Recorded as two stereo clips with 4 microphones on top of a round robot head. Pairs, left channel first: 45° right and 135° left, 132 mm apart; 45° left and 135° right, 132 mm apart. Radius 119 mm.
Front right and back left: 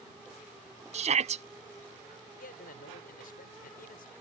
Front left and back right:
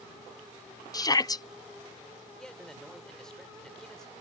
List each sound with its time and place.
0.9 s a shout: 105° left
2.4 s a man speaking: 40° right